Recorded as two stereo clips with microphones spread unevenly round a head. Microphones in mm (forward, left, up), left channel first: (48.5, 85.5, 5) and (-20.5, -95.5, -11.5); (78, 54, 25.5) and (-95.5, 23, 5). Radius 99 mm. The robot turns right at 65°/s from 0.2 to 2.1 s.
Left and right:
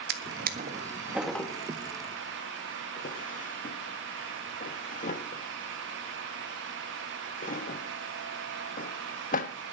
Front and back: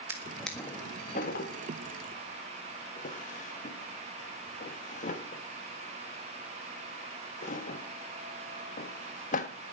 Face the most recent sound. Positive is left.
turn(degrees=35)